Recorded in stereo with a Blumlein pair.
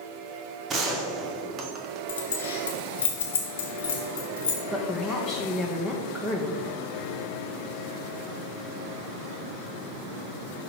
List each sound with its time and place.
0.7 s a gunshot: 25° right, 1.0 m
2.1 s keys jangling: 60° left, 1.4 m
4.7 s a woman speaking: 5° left, 1.1 m